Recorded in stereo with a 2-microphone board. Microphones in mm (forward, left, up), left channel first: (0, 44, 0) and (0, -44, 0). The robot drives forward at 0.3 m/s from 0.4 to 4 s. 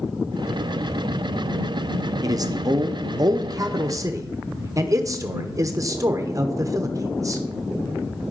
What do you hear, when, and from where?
2.2 s a man speaking: 45° right (ahead or behind), 0.6 m; by 7.4 s 40° right (ahead or behind), 0.6 m